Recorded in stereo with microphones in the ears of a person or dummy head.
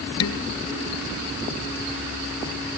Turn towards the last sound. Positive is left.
turn(degrees=75)  # may be behind; listen again after turning